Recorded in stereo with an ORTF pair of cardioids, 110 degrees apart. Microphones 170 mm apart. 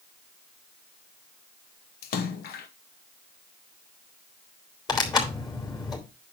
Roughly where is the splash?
Ahead left.